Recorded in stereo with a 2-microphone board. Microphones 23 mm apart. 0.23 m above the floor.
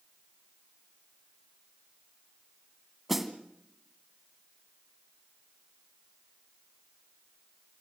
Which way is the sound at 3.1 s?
10° right (ahead or behind).